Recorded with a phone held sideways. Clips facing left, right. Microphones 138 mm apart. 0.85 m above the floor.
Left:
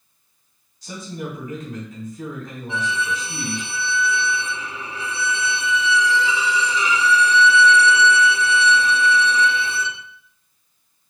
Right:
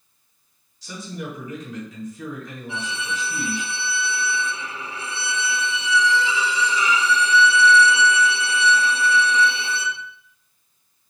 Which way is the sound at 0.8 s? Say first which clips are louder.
Left 2 dB; 55° left (ahead or behind).